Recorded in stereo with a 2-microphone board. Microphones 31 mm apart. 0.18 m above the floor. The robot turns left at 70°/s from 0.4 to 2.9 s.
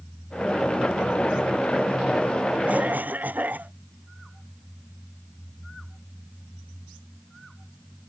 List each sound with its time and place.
2.7 s a cough: 50° right (ahead or behind); by 3.7 s 65° right (ahead or behind)